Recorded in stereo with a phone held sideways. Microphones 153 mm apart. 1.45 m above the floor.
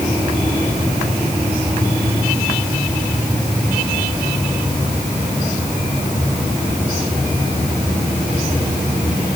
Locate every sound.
Only background noise.